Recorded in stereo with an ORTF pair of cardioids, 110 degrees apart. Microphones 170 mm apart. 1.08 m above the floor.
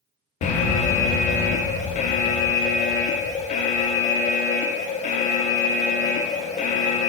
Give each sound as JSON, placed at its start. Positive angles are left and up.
{"t": 0.4, "sound": "an alarm", "azimuth_deg": 50, "distance_m": 0.6}